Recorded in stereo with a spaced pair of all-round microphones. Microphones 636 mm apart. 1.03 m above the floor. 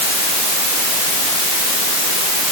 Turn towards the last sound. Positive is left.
No sound to turn to.